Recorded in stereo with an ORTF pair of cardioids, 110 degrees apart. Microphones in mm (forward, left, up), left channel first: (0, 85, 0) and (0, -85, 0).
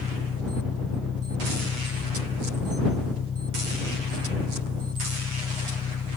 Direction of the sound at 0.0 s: 40° left.